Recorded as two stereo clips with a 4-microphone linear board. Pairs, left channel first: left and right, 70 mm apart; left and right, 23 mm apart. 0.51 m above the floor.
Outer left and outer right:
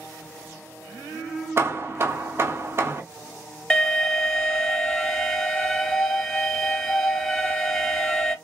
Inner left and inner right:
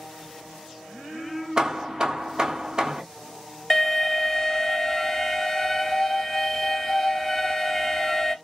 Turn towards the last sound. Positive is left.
turn(degrees=10)  # may be behind; listen again after turning